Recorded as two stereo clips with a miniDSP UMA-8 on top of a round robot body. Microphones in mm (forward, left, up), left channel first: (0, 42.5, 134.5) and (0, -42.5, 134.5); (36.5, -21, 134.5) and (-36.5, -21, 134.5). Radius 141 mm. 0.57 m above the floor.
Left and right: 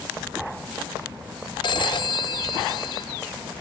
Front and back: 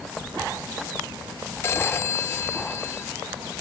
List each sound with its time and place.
1.6 s a phone ringing: 60° left, 0.8 m